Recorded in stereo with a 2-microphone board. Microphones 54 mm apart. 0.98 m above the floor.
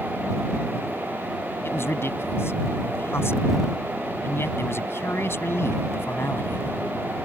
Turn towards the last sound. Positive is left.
turn(degrees=50)  # may be behind; listen again after turning